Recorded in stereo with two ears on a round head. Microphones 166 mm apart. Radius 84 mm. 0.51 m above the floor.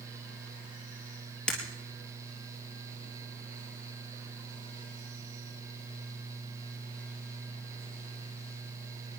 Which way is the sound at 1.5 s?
5° left (ahead or behind).